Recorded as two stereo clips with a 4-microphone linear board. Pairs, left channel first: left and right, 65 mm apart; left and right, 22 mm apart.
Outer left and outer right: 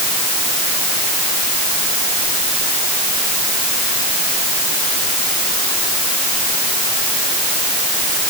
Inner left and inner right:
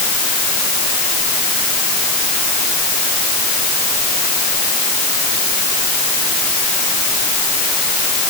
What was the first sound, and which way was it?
Only background noise.